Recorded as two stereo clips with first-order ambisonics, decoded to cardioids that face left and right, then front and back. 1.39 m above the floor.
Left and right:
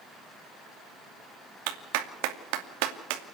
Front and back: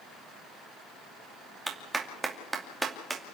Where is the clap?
100° right, 2.5 m.